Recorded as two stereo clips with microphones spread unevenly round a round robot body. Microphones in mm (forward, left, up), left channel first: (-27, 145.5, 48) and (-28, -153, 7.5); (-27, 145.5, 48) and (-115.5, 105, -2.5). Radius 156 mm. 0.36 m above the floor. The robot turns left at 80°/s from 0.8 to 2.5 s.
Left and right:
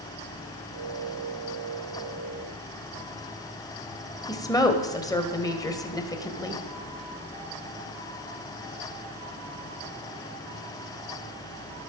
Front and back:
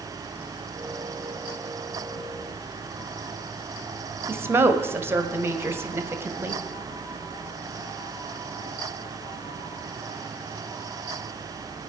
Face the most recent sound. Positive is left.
turn(degrees=170)